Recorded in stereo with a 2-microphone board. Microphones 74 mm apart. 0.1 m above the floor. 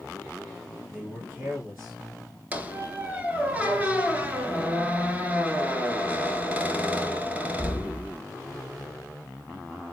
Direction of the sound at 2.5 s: 20° right (ahead or behind).